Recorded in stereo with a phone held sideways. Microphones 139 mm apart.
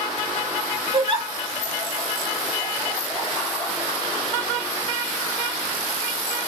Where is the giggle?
45° right (ahead or behind), 2.5 m.